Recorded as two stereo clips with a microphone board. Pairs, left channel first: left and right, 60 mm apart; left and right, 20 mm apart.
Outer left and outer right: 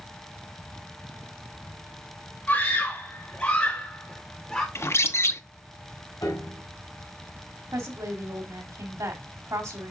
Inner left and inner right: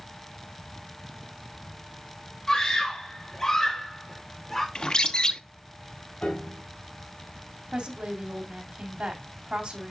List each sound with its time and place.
2.5 s a scream: 25° left (ahead or behind), 4 m; by 4.7 s 5° left (ahead or behind), 3 m
4.8 s a bird: 45° left (ahead or behind), 0.6 m
6.2 s a piano: 70° left (ahead or behind), 4 m
7.7 s a woman speaking: 70° right (ahead or behind), 2.5 m